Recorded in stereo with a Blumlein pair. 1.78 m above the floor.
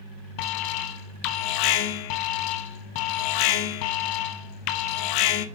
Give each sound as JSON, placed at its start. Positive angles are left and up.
{"t": 0.4, "sound": "an alarm", "azimuth_deg": 45, "distance_m": 1.0}